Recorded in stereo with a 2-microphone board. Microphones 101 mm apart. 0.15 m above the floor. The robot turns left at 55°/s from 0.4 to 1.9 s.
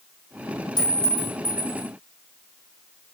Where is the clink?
125° left, 3.5 m; by 1.9 s 65° left, 3.5 m.